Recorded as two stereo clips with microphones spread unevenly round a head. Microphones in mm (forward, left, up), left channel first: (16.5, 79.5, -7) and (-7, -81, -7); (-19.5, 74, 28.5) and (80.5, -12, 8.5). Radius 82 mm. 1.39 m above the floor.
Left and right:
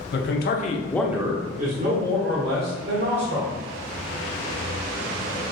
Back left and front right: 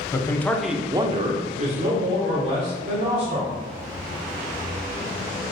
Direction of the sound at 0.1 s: 65° left.